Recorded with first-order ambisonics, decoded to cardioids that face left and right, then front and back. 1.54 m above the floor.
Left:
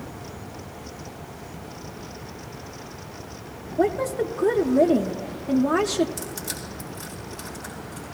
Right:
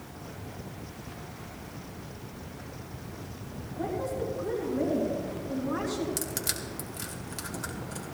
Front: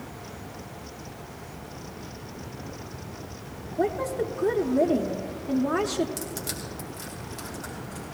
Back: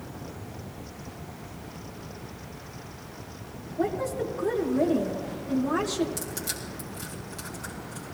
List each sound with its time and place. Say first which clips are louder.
3.8 s a woman speaking: left 9 dB, front 2 dB; 75° left, 0.6 m
6.2 s crushing: even, even; 85° right, 2.5 m